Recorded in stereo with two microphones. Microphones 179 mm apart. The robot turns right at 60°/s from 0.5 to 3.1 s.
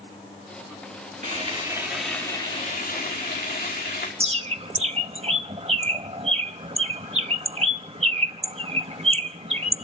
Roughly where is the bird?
Right.